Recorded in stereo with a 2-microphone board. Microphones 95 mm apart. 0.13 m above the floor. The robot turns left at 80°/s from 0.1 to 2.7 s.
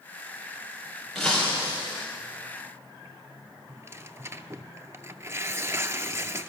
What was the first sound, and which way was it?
Breaking glass, straight behind.